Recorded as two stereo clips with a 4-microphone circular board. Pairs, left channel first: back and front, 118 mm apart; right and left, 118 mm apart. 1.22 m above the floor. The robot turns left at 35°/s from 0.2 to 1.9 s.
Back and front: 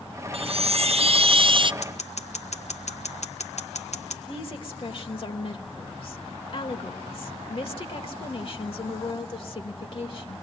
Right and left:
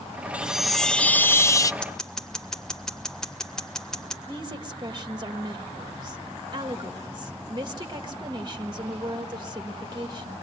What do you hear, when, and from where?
0.3 s a chime: 10° left, 0.5 m; by 1.7 s 35° right, 0.5 m
1.8 s scissors: 170° right, 1.7 m; by 4.2 s 175° right, 1.7 m
4.3 s a woman speaking: 140° left, 1.9 m